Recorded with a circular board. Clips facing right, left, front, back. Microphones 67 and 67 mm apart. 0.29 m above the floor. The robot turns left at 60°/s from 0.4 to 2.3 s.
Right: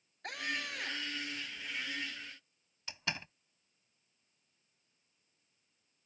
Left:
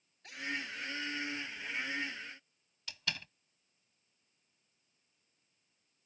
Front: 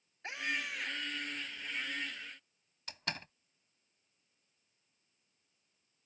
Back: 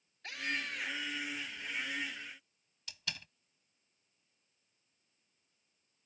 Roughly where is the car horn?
I don't hear a car horn.